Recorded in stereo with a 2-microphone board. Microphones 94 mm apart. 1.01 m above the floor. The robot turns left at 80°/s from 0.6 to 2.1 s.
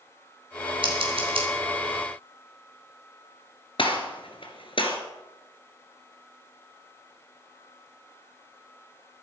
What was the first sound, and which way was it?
Scissors, 60° right (ahead or behind).